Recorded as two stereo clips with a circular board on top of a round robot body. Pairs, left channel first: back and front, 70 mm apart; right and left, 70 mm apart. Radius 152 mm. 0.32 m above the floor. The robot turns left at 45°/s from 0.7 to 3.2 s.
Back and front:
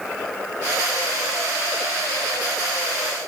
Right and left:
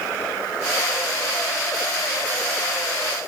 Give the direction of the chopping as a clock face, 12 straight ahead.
I don't hear chopping.